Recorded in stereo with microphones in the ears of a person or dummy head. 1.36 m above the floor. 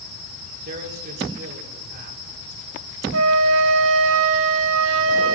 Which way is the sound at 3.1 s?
70° right (ahead or behind).